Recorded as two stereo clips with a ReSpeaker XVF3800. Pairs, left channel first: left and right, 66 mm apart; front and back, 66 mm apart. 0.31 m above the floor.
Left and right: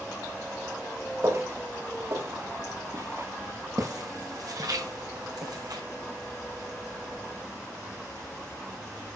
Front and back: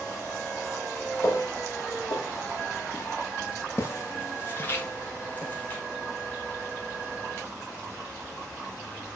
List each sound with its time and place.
1.2 s footsteps: 40° right, 6 m; by 5.8 s 70° right, 4.5 m